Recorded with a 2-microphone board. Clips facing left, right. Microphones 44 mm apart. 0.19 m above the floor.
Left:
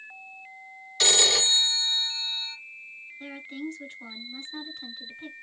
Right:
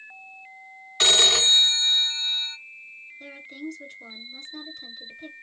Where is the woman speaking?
25° left (ahead or behind), 2.5 m.